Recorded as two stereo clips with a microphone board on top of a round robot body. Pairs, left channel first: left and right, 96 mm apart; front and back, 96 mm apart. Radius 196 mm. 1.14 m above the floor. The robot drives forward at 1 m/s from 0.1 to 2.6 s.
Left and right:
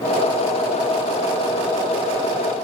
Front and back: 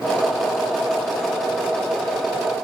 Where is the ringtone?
No ringtone in this recording.